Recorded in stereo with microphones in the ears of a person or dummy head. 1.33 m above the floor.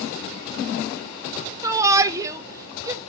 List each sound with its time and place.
1.6 s a shout: 10° right (ahead or behind), 0.9 m